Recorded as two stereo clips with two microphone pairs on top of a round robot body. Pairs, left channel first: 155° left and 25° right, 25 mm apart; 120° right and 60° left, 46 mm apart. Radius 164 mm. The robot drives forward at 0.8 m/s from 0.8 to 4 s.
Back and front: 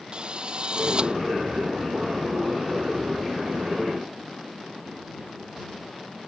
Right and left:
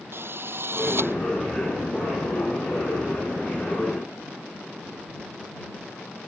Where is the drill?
25° left.